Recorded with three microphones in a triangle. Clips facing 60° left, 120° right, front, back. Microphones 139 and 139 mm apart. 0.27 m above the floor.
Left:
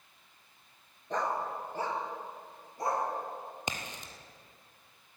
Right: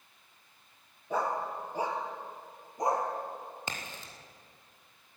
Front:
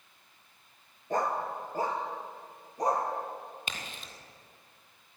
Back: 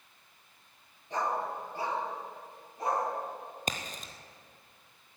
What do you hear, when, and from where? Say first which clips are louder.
1.1 s a dog barking: right 1 dB, front 2 dB; 40° right, 1.7 m; by 3.1 s 50° right, 2.5 m
3.7 s a crack: left 2 dB, back 5 dB; 130° left, 1.5 m